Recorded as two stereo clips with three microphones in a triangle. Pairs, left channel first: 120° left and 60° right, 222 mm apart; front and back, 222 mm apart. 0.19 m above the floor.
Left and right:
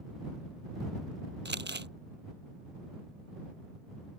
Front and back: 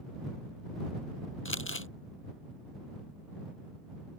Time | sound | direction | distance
1.4 | crumpling | 25° right | ?